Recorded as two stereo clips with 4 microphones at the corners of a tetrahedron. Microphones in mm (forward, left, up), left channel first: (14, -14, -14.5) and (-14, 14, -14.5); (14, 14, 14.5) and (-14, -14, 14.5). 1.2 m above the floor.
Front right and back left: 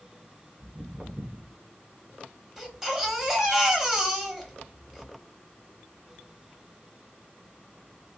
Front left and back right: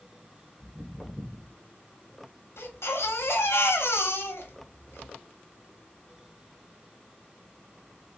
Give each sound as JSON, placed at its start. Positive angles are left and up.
{"t": 0.6, "sound": "footsteps", "azimuth_deg": 95, "distance_m": 1.2}
{"t": 2.6, "sound": "a baby crying", "azimuth_deg": 50, "distance_m": 0.9}